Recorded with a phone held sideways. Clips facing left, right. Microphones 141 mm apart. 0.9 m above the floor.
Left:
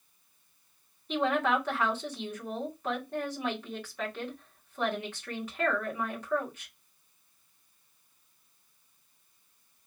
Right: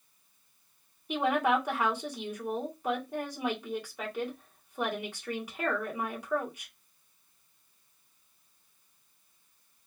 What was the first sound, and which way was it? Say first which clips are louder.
A woman speaking: right 1 dB; 10° right (ahead or behind).